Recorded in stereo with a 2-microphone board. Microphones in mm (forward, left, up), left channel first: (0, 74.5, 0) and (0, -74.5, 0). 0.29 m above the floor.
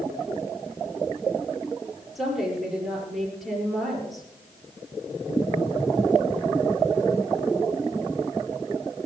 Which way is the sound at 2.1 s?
5° right (ahead or behind).